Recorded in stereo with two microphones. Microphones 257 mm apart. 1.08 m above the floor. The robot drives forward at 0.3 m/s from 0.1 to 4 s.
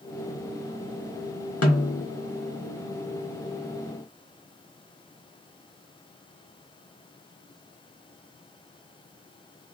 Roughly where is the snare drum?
Left.